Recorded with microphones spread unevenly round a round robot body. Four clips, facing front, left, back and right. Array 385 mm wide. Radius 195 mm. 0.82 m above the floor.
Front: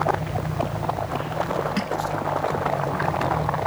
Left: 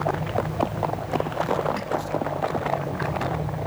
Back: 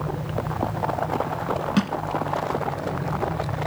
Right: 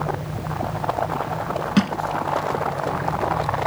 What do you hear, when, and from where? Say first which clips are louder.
1.8 s crushing: right 6 dB, back 3 dB; 105° right